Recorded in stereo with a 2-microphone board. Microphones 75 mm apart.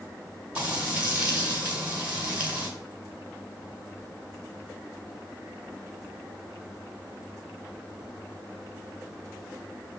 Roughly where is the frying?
Centre.